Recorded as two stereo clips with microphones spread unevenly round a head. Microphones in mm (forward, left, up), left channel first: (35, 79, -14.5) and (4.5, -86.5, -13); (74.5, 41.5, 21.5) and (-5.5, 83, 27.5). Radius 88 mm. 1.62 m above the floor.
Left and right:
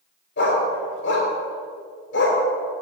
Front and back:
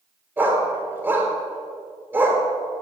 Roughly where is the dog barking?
Left.